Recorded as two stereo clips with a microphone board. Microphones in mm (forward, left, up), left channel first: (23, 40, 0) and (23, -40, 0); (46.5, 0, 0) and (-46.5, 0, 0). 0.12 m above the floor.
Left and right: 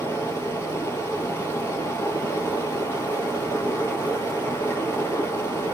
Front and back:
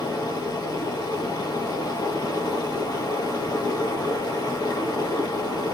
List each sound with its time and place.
0.0 s running water: 40° left, 1.8 m